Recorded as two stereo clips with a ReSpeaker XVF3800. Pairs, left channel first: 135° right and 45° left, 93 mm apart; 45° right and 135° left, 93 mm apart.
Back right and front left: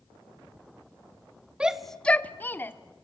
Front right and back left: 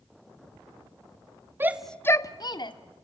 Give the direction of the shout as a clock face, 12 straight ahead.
8 o'clock.